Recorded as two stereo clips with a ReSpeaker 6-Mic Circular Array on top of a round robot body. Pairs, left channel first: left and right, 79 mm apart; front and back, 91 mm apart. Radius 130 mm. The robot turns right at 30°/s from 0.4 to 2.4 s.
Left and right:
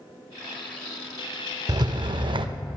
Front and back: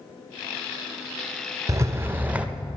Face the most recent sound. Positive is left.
turn(degrees=-105)